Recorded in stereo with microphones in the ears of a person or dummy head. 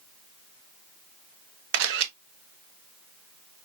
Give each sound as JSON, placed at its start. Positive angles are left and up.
{"t": 1.7, "sound": "a camera shutter", "side_deg": -70, "distance_m": 0.9}